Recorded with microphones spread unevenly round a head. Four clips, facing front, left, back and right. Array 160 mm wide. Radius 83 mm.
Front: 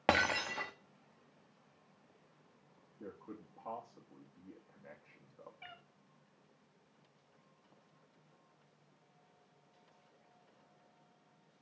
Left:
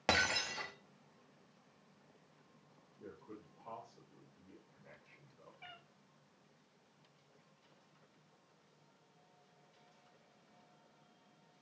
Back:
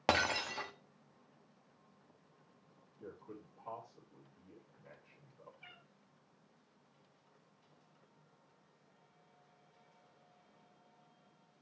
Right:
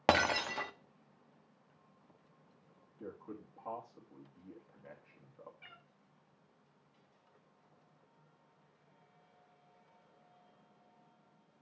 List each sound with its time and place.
0.1 s breaking glass: 105° right, 1.1 m
3.0 s a man speaking: 40° right, 3 m
5.6 s a cat meowing: 20° left, 2.5 m